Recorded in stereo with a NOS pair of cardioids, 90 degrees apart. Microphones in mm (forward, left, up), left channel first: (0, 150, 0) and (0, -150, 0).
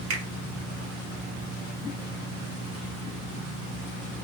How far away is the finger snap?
About 1.7 m.